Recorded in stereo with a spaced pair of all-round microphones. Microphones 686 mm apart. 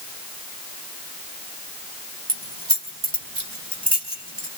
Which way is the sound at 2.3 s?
35° right (ahead or behind).